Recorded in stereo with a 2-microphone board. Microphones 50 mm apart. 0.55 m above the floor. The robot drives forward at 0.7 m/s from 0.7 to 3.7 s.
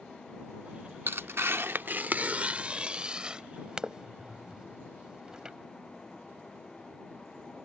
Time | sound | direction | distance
1.1 | tearing paper | 50° right (ahead or behind) | ?